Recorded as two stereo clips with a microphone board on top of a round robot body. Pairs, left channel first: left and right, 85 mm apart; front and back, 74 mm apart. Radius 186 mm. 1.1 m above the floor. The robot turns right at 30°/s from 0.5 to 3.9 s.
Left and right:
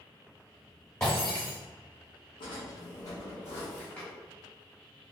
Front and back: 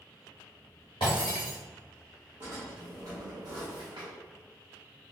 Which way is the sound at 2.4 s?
120° left.